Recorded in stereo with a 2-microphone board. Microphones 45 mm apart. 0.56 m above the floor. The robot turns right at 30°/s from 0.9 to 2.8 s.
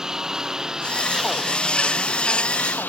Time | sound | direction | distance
0.0 | a lawn mower | 15° right | ?